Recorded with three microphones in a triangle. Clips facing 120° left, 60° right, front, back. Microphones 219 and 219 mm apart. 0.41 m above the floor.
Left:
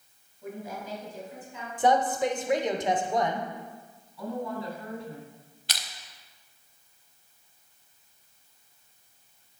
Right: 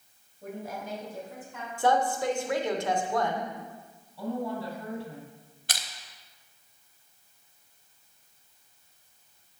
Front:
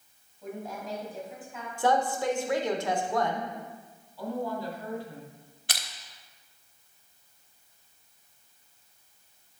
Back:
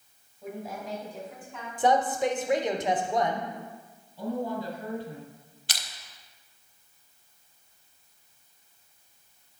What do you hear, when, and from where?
0.4 s a woman speaking: 95° right, 2.5 m; by 1.7 s 80° right, 3 m
1.8 s a woman speaking: 150° left, 0.8 m
4.2 s a woman speaking: 120° right, 2 m
5.7 s crushing: 25° right, 0.7 m